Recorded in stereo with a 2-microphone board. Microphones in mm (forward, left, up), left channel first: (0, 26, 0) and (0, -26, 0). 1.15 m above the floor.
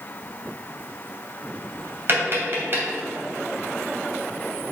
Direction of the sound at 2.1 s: 45° right (ahead or behind).